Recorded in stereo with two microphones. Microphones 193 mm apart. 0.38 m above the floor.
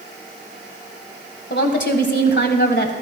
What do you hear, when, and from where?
1.5 s a woman speaking: 65° left (ahead or behind), 1.9 m